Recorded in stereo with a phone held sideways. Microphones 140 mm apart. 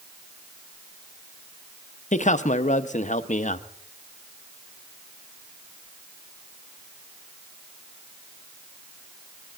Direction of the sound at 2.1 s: 60° left (ahead or behind).